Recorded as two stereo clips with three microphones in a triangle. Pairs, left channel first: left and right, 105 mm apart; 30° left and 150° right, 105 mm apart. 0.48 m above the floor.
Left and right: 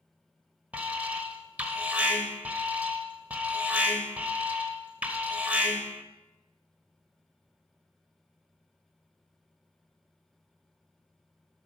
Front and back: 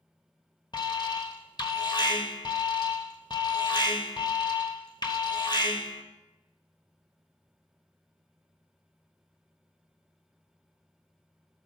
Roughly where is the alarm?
Ahead.